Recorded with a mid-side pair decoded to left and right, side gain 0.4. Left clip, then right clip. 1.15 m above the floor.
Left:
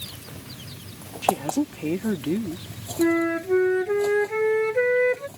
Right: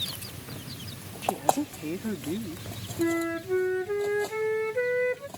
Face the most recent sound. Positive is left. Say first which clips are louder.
# left 6 dB
turn(degrees=45)